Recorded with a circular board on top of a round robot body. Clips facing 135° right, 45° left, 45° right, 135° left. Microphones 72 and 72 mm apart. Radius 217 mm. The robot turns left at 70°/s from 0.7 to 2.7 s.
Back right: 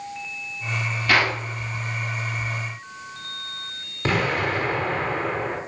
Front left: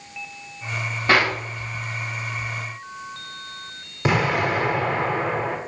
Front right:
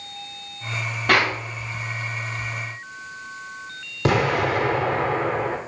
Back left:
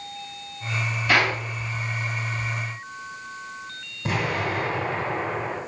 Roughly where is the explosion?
Ahead right.